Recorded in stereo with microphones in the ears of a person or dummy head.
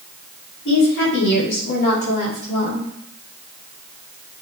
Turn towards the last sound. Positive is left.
turn(degrees=35)  # may be behind; listen again after turning